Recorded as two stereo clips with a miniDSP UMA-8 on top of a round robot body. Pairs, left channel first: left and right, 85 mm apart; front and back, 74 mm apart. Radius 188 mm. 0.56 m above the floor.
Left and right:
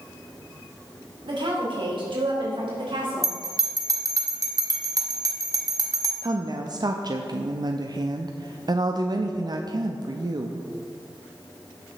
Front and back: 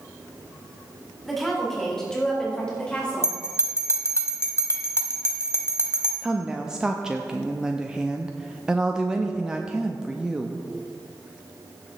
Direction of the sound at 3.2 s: 50° right.